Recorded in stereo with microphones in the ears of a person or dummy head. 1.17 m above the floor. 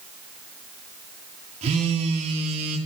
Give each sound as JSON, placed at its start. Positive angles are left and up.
{"t": 1.6, "sound": "a phone buzzing", "side_deg": -40, "distance_m": 2.0}